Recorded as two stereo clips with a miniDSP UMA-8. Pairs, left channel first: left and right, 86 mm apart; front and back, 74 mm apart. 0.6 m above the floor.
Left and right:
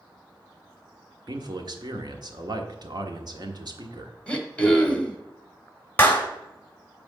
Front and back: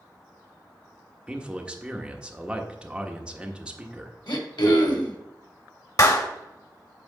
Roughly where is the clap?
Ahead left.